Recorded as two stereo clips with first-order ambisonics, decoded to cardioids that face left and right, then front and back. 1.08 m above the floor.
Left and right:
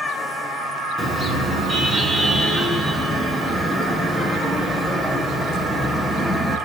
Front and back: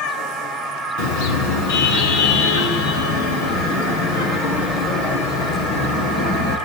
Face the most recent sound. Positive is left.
turn(degrees=-10)